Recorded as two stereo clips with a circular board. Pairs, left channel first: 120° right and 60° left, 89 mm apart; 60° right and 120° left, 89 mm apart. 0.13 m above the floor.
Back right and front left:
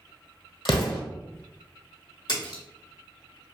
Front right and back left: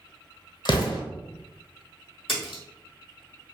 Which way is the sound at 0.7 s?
95° right.